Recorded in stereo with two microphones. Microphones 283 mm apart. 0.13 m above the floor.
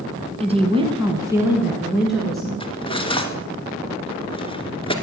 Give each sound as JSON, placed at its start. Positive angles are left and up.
{"t": 0.4, "sound": "a woman speaking", "side_deg": -20, "distance_m": 1.6}
{"t": 2.6, "sound": "cutlery clinking", "side_deg": 15, "distance_m": 1.1}